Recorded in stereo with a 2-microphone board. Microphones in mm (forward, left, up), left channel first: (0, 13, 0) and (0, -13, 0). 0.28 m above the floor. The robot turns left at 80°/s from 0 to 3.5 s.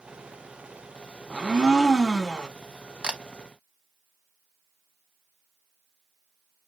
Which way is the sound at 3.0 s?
45° right (ahead or behind).